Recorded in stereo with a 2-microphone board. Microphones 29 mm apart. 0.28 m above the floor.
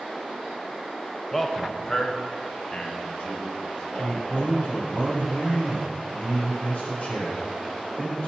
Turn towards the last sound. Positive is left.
turn(degrees=55)  # may be behind; listen again after turning